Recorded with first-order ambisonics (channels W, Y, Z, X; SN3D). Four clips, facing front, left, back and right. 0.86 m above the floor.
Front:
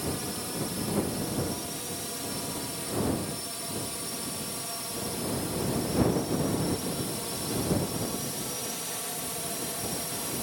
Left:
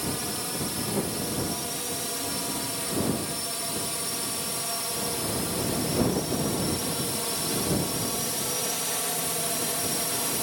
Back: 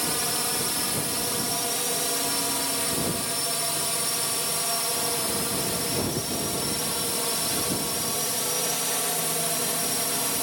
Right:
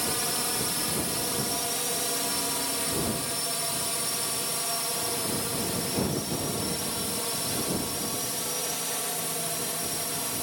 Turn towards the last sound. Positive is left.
turn(degrees=160)